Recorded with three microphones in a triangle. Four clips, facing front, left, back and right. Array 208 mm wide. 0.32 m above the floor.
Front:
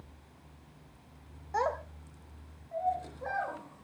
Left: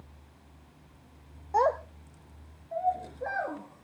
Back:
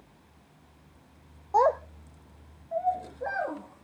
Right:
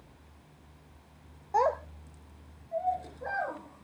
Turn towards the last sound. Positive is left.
turn(degrees=145)